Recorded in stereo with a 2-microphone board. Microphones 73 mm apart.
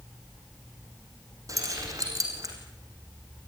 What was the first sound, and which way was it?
Keys jangling, 45° right (ahead or behind).